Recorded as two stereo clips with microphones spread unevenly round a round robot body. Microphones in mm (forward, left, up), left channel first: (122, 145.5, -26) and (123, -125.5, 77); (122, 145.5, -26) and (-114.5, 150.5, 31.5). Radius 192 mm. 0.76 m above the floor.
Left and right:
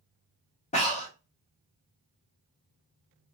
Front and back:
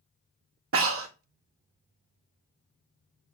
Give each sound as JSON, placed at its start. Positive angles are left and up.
{"t": 0.7, "sound": "breathing", "azimuth_deg": 145, "distance_m": 1.0}